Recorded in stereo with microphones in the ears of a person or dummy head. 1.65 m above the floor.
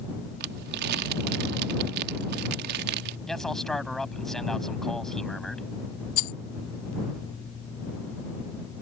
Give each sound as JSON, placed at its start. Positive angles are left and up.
{"t": 0.4, "sound": "crumpling", "side_deg": -55}
{"t": 3.3, "sound": "a man speaking", "side_deg": 0}
{"t": 6.2, "sound": "a rattle", "side_deg": 40}